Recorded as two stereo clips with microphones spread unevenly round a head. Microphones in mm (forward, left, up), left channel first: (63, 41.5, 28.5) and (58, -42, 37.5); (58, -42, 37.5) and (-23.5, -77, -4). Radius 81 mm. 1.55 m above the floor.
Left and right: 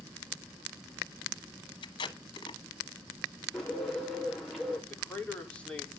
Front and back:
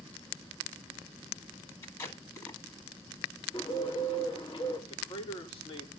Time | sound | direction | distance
1.8 | tape being pulled | 70° left | 1.3 m
3.5 | a bird | 5° right | 5 m
4.9 | a man speaking | 10° left | 4.5 m